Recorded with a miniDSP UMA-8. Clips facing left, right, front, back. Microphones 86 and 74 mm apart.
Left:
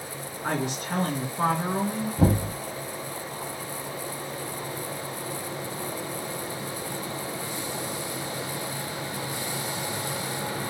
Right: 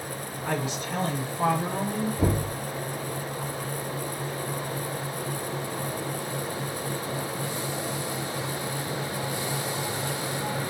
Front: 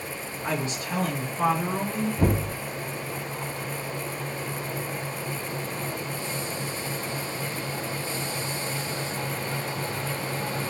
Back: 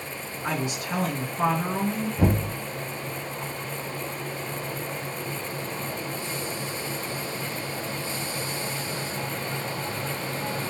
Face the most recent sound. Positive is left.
turn(degrees=95)